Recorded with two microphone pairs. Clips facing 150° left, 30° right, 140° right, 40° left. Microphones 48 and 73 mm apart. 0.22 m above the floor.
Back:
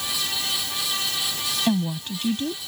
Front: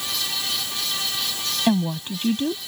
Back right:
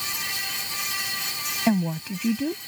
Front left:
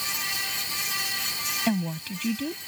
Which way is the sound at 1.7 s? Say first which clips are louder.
Front 3 dB, back right 5 dB; 80° right.